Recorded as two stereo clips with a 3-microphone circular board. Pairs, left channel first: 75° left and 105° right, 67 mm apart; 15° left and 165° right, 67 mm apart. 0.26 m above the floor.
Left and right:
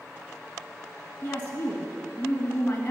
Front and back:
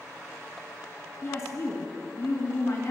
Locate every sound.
1.2 s a woman speaking: 20° left, 2.0 m